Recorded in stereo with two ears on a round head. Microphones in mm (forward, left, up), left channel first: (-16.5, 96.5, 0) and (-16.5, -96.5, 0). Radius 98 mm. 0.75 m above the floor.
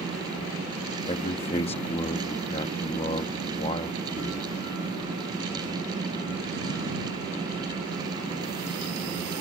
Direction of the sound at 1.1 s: 30° left (ahead or behind).